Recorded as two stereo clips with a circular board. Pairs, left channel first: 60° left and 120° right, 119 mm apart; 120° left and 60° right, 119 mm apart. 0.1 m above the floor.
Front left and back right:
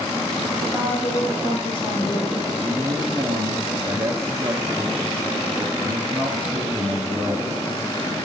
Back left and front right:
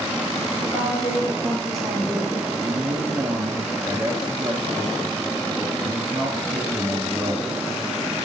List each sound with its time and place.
0.6 s a woman speaking: 120° left, 1.6 m; by 2.5 s 15° left, 2.5 m
2.6 s a man speaking: 80° right, 1.9 m